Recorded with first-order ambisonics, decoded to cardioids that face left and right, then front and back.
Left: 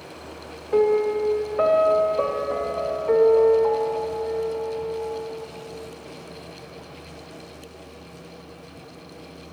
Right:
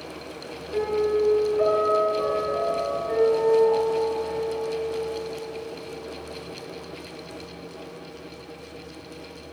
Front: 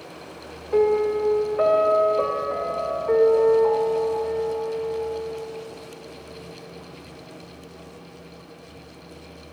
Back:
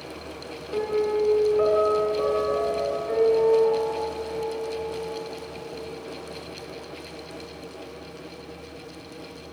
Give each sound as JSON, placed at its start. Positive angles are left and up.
{"t": 0.7, "sound": "a piano", "azimuth_deg": 60, "distance_m": 0.9}